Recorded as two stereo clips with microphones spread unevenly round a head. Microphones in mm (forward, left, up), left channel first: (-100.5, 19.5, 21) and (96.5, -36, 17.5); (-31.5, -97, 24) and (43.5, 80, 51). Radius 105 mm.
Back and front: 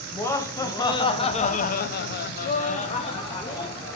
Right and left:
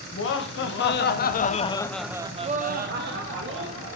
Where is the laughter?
115° right, 1.8 m; by 4.0 s 90° left, 1.9 m.